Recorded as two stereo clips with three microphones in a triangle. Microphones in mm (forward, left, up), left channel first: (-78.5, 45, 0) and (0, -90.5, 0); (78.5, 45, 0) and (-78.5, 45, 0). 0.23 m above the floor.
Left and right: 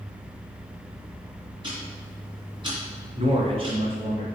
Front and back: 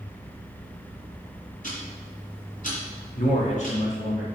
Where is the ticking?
10° right, 2.5 m.